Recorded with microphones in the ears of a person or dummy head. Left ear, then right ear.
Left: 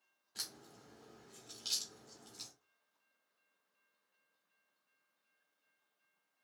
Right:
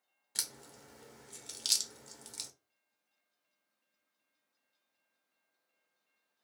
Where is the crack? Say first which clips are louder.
Right 5 dB; 45° right (ahead or behind), 0.6 m.